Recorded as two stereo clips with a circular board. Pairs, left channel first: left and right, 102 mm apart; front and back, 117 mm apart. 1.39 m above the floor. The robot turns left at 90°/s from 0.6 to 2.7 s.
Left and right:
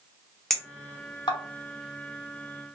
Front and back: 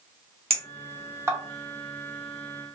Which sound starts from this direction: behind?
A clink, at 0.5 s.